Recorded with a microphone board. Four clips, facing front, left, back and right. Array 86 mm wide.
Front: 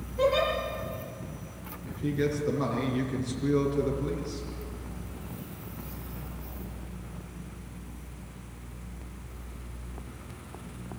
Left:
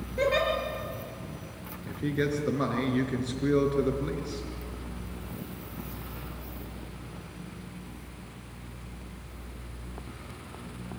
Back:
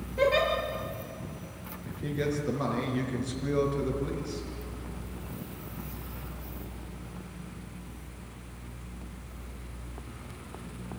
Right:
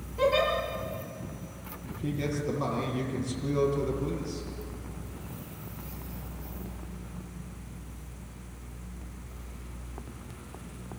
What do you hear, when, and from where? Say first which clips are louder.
0.2 s a giggle: right 1 dB, even; 130° left, 6.5 m
1.9 s a man speaking: left 4 dB, front 3 dB; 95° left, 5 m